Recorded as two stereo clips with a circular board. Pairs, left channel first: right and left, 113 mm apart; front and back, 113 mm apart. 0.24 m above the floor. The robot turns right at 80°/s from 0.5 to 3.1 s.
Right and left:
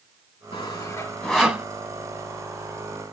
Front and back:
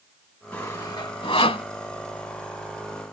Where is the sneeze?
I don't hear a sneeze.